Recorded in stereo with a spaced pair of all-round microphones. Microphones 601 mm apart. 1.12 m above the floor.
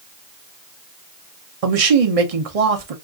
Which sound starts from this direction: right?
A man speaking, at 1.6 s.